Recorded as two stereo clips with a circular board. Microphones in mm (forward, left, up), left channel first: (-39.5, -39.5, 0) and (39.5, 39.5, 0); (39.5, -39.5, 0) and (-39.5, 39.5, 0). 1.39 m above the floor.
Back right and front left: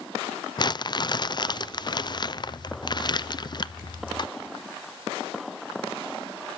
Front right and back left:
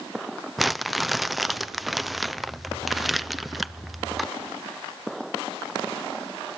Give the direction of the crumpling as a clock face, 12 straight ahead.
5 o'clock.